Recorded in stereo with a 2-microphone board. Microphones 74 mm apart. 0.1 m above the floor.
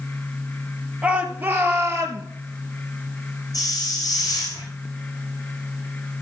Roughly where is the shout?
Centre.